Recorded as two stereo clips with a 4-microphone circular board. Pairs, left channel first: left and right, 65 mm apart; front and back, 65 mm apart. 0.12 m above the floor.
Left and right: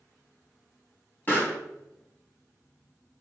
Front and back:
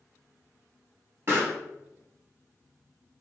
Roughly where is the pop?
Behind left.